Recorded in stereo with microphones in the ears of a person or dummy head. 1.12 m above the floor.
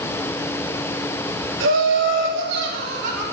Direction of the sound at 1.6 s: 65° right (ahead or behind).